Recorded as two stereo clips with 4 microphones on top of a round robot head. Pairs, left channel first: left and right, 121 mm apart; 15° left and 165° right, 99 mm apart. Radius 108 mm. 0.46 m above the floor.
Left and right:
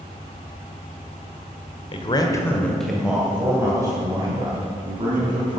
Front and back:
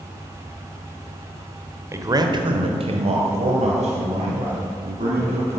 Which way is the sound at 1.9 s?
135° left.